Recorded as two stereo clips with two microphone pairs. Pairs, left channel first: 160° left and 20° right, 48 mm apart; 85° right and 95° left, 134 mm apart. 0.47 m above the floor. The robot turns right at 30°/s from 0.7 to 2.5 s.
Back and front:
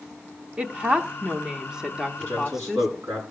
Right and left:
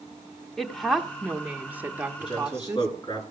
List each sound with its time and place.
0.6 s a woman speaking: straight ahead, 0.9 m; by 2.9 s 55° left, 0.9 m
2.2 s a man speaking: 40° right, 6 m; by 3.2 s 30° right, 6 m